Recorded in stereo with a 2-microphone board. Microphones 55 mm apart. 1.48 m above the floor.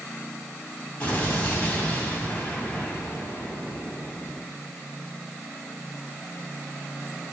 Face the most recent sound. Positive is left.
turn(degrees=25)  # may be behind; listen again after turning